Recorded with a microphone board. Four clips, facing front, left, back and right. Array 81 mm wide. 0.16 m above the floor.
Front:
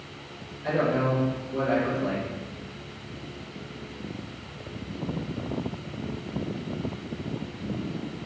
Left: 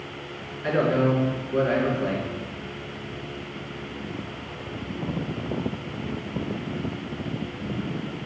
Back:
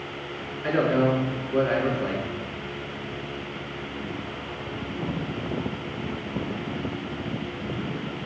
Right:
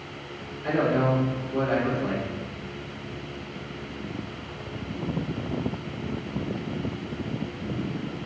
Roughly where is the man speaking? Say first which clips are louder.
Left 1 dB, back 3 dB; behind left.